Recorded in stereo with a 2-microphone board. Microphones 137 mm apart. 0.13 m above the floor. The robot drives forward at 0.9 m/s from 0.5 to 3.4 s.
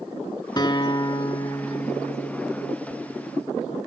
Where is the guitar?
30° left (ahead or behind), 0.7 m; by 3.8 s 10° left (ahead or behind), 2.5 m.